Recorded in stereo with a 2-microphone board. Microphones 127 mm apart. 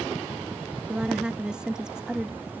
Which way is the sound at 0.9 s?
5° right (ahead or behind).